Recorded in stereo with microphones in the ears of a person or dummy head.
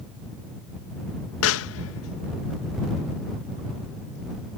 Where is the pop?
80° left.